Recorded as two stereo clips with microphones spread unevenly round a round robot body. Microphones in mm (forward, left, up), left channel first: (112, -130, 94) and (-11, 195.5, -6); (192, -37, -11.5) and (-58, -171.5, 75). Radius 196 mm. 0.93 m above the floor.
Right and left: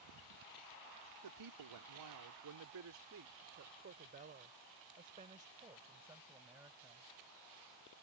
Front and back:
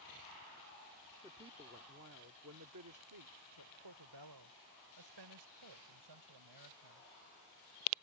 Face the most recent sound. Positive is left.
turn(degrees=-160)